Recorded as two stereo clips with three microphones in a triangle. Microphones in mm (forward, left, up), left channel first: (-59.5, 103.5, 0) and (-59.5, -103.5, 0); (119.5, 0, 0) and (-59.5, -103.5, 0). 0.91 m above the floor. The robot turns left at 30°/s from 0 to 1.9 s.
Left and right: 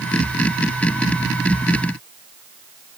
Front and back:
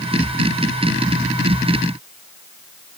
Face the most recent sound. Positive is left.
No sound to turn to.